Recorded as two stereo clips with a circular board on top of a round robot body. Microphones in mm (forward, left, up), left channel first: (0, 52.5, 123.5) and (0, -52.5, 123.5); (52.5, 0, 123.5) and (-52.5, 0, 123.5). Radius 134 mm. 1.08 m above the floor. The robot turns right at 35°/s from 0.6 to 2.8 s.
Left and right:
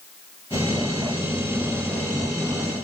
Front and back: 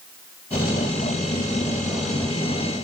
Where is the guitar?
I don't hear a guitar.